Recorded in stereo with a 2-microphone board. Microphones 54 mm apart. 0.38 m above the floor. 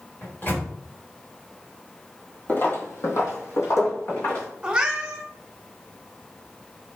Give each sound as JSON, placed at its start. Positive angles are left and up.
{"t": 0.2, "sound": "a microwave", "side_deg": 40, "distance_m": 1.1}
{"t": 2.5, "sound": "footsteps", "side_deg": 30, "distance_m": 0.5}
{"t": 4.6, "sound": "a cat meowing", "side_deg": -20, "distance_m": 0.5}